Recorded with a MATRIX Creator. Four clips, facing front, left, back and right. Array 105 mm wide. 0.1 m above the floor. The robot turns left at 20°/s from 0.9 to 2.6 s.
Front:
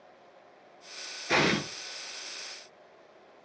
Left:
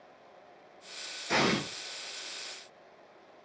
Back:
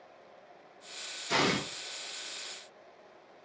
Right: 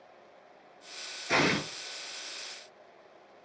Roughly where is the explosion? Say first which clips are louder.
Right 1 dB, front 3 dB; ahead right.